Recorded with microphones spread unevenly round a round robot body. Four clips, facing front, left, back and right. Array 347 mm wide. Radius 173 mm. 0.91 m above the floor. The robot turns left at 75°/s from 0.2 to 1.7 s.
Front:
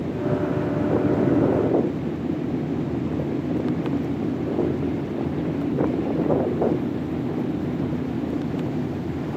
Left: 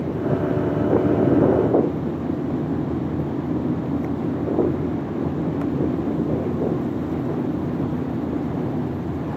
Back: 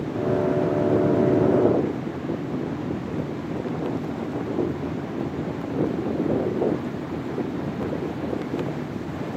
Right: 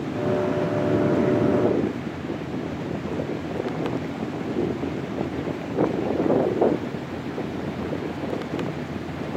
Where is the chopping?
I don't hear chopping.